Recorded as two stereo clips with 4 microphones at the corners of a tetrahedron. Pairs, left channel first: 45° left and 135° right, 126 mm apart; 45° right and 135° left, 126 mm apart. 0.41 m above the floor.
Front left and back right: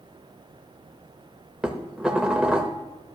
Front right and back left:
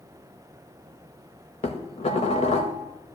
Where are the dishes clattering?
50° right, 0.8 m.